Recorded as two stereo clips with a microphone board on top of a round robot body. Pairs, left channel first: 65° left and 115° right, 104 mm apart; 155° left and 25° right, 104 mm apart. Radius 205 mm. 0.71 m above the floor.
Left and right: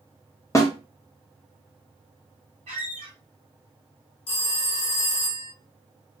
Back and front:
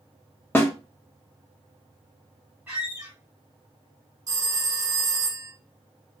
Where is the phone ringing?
30° left, 0.6 m.